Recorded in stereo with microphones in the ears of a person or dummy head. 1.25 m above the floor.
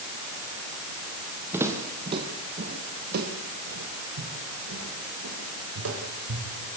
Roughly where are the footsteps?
Centre.